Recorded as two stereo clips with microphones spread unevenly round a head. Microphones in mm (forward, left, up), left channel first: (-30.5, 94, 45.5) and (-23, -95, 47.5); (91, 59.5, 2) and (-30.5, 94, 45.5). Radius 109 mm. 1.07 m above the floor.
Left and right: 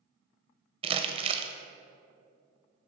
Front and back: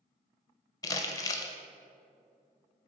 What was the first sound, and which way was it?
Crumpling, 35° right.